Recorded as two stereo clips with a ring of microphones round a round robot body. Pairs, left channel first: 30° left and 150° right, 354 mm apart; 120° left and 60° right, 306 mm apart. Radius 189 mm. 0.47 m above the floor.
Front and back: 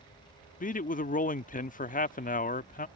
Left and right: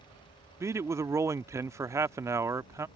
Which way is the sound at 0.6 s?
10° left.